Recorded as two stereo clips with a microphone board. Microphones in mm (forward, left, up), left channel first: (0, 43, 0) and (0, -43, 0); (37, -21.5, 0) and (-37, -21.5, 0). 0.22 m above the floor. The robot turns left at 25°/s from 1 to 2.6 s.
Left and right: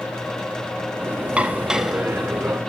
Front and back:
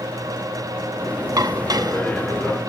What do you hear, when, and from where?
1.4 s dishes clattering: 165° right, 1.2 m; by 2.6 s 165° left, 1.2 m